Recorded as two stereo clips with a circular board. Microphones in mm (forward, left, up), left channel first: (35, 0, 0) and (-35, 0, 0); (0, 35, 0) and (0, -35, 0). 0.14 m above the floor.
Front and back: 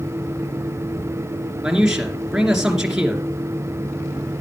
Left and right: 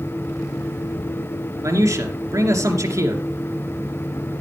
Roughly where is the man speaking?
Right.